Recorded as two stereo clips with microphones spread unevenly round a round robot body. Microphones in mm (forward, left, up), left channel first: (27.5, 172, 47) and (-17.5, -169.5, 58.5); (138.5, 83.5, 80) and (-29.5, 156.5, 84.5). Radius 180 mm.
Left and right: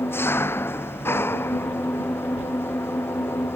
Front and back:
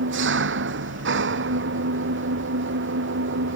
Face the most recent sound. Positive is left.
turn(degrees=165)